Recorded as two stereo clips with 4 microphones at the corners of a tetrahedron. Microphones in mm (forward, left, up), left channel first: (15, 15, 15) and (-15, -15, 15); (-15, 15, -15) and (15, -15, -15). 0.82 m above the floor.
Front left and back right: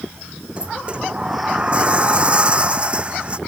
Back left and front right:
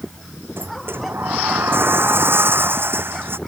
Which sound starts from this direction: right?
A sliding door, at 0.6 s.